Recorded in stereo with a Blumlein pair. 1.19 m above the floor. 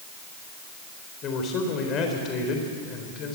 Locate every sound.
1.2 s a man speaking: 30° left, 3.5 m